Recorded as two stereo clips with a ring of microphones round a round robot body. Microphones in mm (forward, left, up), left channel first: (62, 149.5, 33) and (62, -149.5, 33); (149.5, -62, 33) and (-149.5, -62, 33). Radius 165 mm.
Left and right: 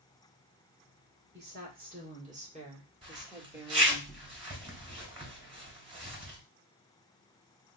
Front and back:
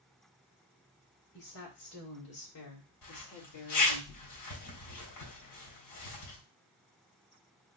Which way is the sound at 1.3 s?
35° right.